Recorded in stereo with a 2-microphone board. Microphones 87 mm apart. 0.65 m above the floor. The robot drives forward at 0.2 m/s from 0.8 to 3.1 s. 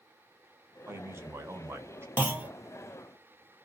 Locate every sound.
0.9 s a man speaking: 30° right (ahead or behind), 0.8 m
2.2 s a clunk: 20° right (ahead or behind), 0.5 m